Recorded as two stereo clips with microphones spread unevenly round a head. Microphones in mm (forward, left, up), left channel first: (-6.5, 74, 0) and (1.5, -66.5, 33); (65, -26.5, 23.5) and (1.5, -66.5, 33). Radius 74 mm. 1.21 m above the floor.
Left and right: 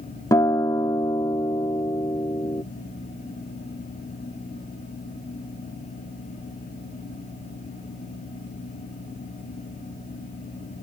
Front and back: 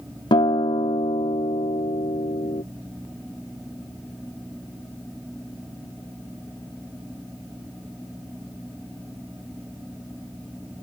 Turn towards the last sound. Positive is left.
turn(degrees=20)